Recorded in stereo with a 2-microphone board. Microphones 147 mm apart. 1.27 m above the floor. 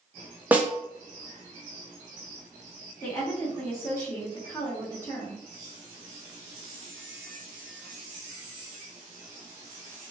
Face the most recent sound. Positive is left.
turn(degrees=15)  # may be behind; listen again after turning